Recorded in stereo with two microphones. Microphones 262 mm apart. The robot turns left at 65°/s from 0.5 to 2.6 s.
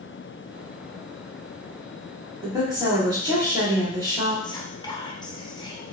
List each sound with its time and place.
2.4 s a woman speaking: 5° right (ahead or behind), 1.7 m; by 4.3 s 15° right (ahead or behind), 1.7 m
4.4 s whispering: 15° left (ahead or behind), 0.6 m